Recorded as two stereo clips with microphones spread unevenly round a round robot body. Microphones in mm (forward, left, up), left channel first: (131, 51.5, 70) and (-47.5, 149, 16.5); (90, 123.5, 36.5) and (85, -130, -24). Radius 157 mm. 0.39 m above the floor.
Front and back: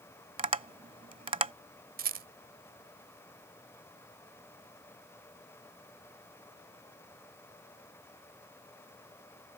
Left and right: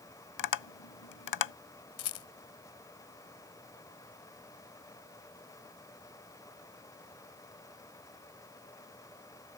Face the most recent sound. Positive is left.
turn(degrees=135)